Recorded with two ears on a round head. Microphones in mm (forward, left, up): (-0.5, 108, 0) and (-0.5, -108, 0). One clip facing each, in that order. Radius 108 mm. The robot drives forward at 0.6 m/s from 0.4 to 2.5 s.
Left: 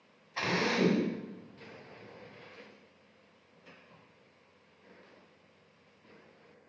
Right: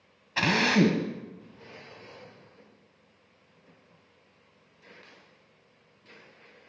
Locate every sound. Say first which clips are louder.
0.4 s a drill: right 6 dB; 70° right (ahead or behind), 1.2 m; by 1.1 s 85° right, 1.2 m